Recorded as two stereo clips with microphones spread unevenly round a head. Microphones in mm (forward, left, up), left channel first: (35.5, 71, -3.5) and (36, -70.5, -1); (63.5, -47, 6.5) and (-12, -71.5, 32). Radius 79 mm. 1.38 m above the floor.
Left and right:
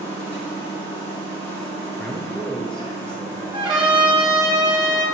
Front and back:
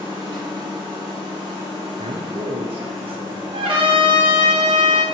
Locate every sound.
0.0 s a machine running: 165° left, 1.5 m
2.0 s a man speaking: 175° left, 0.5 m
3.5 s a trumpet: 155° right, 1.4 m